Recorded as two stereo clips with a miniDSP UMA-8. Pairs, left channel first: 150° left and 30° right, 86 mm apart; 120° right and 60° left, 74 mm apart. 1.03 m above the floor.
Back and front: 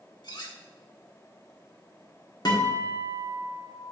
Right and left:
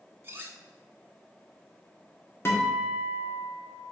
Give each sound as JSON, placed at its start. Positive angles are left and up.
{"t": 0.2, "sound": "cutlery clinking", "azimuth_deg": 120, "distance_m": 0.9}
{"t": 2.5, "sound": "a guitar", "azimuth_deg": -175, "distance_m": 1.5}